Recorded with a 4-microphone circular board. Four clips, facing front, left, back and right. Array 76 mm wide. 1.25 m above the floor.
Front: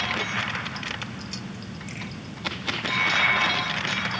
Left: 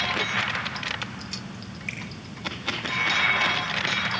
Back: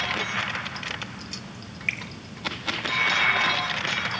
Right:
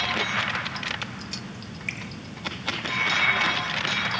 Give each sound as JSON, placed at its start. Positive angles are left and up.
{"t": 1.9, "sound": "a finger snap", "azimuth_deg": -175, "distance_m": 6.0}